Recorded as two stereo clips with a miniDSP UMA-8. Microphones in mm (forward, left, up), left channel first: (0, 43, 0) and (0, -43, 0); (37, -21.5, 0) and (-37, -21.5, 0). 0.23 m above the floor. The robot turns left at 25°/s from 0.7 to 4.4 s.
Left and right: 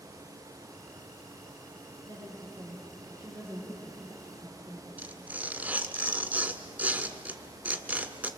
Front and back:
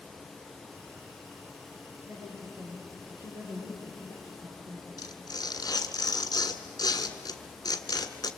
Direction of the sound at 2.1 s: 120° right.